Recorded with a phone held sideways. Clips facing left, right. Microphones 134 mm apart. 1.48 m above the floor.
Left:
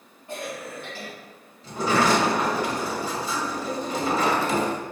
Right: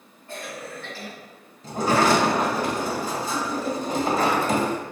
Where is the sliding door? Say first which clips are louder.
Right 2 dB; 50° right (ahead or behind), 2.0 m.